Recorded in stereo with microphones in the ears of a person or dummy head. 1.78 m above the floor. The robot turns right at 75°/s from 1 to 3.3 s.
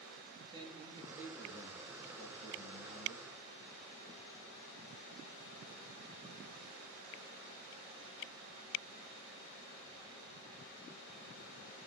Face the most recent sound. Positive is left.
turn(degrees=145)